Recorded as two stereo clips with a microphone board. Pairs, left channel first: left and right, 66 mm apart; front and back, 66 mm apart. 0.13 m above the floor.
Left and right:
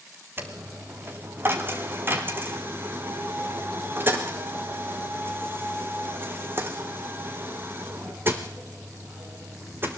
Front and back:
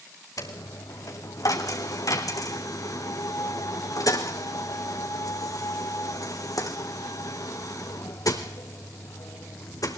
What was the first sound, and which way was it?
A dropped coin, 30° right.